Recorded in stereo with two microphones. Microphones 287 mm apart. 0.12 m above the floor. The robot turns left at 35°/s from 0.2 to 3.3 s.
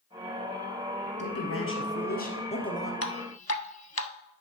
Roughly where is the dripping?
Left.